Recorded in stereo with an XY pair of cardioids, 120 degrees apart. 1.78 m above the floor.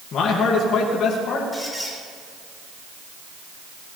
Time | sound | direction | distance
0.1 | a man speaking | 60° left | 2.5 m
1.5 | a squeak | 5° left | 3.5 m